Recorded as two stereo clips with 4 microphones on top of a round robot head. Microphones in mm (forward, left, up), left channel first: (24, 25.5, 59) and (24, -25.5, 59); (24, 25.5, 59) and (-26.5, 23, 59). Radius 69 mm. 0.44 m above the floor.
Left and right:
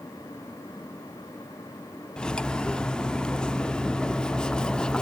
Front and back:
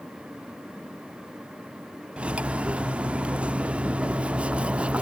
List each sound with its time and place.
2.2 s cutlery clinking: 145° left, 0.6 m